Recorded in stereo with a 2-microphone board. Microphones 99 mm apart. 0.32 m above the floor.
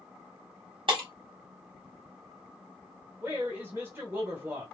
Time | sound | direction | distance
0.9 | breaking glass | 60° right (ahead or behind) | 1.1 m
3.2 | a woman speaking | 25° right (ahead or behind) | 0.9 m